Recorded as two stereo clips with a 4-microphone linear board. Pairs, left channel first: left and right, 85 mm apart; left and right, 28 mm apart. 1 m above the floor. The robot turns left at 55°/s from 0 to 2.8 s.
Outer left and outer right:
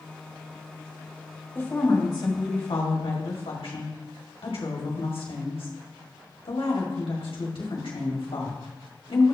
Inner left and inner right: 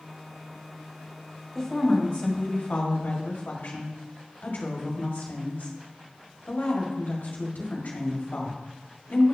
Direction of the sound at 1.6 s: 160° left.